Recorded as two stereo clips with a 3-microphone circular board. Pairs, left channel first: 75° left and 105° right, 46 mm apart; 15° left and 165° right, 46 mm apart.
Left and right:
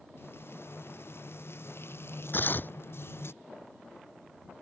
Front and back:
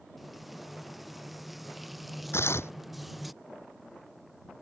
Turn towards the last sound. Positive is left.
turn(degrees=35)